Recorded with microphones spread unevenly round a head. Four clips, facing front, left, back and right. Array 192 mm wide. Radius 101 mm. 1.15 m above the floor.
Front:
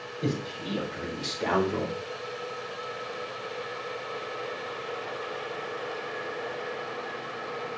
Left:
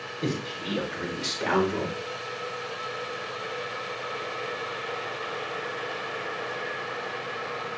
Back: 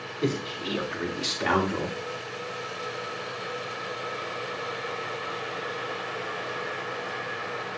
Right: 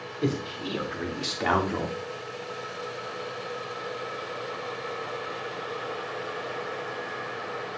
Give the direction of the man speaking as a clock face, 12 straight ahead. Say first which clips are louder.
Right 2 dB, back 3 dB; 4 o'clock.